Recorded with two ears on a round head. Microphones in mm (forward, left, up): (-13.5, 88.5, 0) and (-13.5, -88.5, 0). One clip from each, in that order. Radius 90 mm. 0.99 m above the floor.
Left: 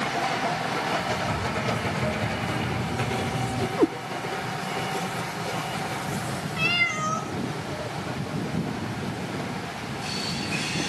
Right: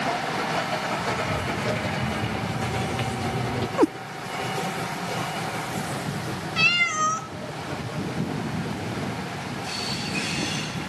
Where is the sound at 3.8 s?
35° right (ahead or behind), 0.5 m.